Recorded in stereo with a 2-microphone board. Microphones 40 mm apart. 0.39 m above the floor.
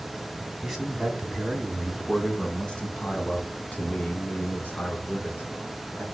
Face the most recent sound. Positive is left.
turn(degrees=55)  # may be behind; listen again after turning